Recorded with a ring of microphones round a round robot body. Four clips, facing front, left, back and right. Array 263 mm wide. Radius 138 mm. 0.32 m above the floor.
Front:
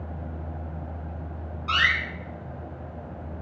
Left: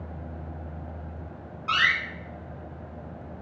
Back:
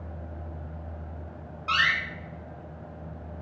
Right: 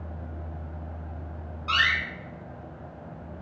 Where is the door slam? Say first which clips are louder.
Left 1 dB, front 1 dB; 135° left, 0.9 m.